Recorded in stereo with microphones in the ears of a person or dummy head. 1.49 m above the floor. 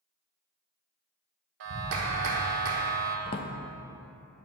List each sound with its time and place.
1.6 s a clap: 60° right (ahead or behind), 1.3 m
3.3 s a drawer: 30° left (ahead or behind), 0.8 m